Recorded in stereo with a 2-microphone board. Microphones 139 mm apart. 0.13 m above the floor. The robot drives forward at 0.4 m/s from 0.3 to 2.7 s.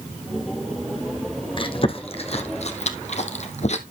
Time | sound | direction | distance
1.6 | chewing | 40° left (ahead or behind) | 1.4 m